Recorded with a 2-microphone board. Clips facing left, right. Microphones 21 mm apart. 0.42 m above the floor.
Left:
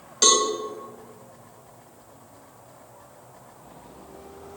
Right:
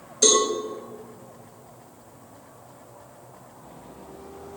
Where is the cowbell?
60° left (ahead or behind), 1.8 m.